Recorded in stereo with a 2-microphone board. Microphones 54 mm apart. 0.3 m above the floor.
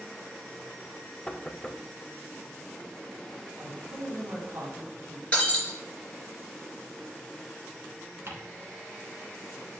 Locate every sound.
1.3 s knocking: 15° left (ahead or behind), 0.6 m
3.6 s a man speaking: 55° right (ahead or behind), 2.5 m
5.3 s breaking glass: 25° left (ahead or behind), 3 m
8.3 s ticking: 55° right (ahead or behind), 3 m